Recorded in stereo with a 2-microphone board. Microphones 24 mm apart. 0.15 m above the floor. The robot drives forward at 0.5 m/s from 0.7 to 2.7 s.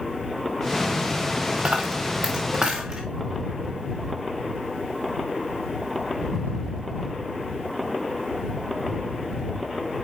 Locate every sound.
1.6 s a dropped coin: 60° right (ahead or behind), 1.9 m; by 3.0 s 45° right (ahead or behind), 2.5 m